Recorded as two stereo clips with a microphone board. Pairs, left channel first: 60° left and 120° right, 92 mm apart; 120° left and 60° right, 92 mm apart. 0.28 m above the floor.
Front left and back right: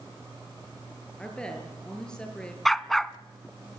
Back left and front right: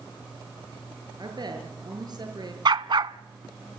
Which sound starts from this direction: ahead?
A woman speaking, at 1.2 s.